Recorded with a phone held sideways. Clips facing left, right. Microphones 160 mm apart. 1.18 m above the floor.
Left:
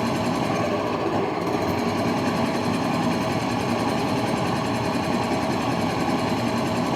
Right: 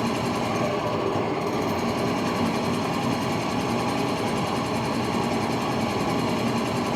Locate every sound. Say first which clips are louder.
0.0 s a machine running: left 2 dB; 60° left (ahead or behind), 1.0 m